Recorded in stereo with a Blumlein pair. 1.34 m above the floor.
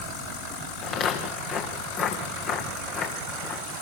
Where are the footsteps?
35° left, 5 m.